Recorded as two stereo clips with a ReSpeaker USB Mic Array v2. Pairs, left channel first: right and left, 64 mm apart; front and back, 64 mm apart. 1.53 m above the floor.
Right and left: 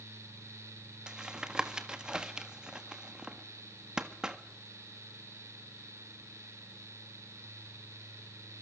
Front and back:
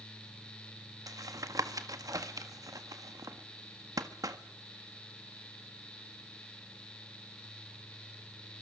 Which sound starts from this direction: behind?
Tapping, at 1.1 s.